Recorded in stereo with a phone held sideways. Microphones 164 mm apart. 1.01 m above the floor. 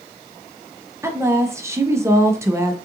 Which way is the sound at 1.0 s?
15° right (ahead or behind).